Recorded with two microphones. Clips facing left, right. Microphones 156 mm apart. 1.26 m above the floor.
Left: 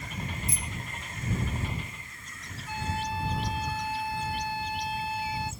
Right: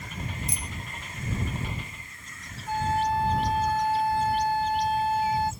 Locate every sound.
0.5 s a bicycle bell: 65° right (ahead or behind)
2.7 s a flute: 50° right (ahead or behind)